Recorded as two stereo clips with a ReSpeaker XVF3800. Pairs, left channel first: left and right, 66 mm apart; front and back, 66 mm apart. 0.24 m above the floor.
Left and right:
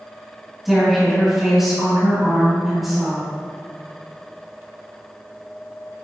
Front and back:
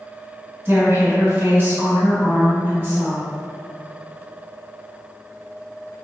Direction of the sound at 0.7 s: 175° right.